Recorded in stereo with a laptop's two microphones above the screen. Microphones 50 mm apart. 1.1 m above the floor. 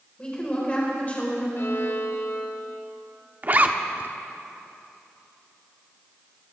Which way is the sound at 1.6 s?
55° left (ahead or behind).